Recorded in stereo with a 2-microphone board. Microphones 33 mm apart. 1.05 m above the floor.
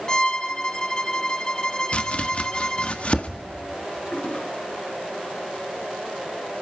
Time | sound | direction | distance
0.1 | a violin | 25° left (ahead or behind) | 1.2 m
1.9 | chopping | 40° left (ahead or behind) | 1.6 m
4.1 | a toilet flushing | 35° left (ahead or behind) | 3 m